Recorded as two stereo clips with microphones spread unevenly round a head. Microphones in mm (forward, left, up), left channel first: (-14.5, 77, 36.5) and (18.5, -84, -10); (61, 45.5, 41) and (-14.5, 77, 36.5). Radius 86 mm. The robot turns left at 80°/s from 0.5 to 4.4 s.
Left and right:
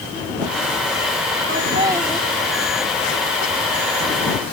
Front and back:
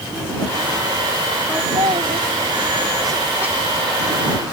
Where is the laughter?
120° right; by 3.5 s 80° left.